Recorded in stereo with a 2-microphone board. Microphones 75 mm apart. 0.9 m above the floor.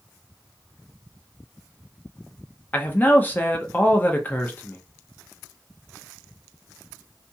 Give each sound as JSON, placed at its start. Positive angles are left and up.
{"t": 2.7, "sound": "a man speaking", "side_deg": 25, "distance_m": 0.5}